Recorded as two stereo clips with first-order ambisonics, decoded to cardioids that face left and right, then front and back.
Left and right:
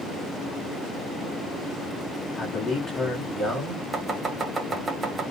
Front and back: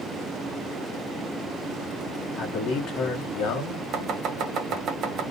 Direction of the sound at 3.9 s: 160° right.